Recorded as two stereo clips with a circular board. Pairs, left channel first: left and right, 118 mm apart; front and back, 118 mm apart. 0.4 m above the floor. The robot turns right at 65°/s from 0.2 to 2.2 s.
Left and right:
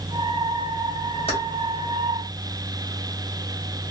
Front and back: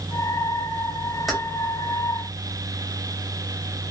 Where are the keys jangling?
90° left, 1.5 m; by 1.4 s 95° left, 1.5 m.